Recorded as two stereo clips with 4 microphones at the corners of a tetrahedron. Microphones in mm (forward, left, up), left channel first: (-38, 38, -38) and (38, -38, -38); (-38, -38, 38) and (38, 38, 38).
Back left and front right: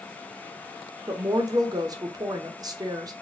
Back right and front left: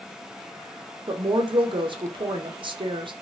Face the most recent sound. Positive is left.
turn(degrees=5)